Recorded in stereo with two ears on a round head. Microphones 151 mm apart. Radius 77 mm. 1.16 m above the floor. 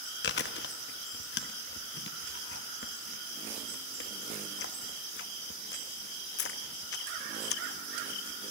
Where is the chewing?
70° left (ahead or behind), 1.0 m.